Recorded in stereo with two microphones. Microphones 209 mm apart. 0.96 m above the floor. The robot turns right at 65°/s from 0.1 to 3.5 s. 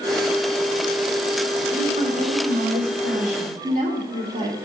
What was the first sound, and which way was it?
A woman speaking, 160° right.